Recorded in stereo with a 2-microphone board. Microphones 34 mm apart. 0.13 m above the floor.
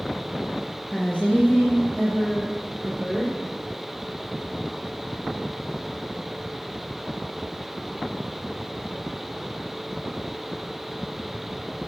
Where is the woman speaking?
35° left (ahead or behind), 1.7 m.